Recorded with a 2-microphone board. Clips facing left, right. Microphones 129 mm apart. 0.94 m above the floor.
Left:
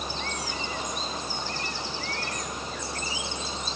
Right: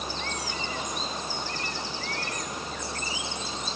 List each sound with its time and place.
Only background noise.